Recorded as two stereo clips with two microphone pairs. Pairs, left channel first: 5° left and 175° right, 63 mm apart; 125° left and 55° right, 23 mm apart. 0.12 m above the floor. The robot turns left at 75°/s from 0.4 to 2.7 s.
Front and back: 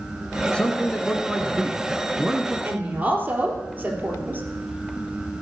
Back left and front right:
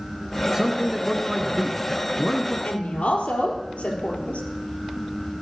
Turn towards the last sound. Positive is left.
turn(degrees=130)